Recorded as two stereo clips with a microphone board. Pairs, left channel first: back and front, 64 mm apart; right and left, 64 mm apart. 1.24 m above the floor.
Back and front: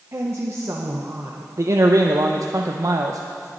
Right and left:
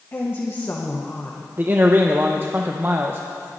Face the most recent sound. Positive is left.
turn(degrees=30)